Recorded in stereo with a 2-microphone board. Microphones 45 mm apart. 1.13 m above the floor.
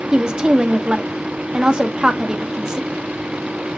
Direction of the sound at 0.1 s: 15° right (ahead or behind).